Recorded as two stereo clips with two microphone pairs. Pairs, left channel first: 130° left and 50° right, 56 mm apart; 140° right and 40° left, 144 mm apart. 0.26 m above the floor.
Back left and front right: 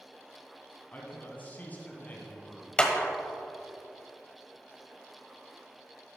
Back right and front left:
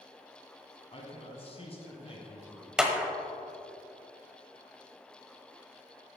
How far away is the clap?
About 1.0 m.